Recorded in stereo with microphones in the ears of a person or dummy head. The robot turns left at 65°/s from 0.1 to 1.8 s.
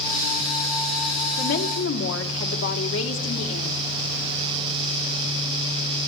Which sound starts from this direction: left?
A woman speaking, at 1.4 s.